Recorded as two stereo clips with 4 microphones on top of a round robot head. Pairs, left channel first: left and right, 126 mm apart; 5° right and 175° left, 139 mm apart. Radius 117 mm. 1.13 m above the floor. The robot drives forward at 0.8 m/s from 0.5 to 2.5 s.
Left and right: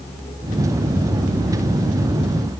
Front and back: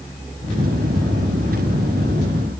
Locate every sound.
Only background noise.